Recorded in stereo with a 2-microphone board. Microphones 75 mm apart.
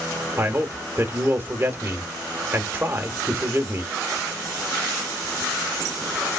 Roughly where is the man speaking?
Right.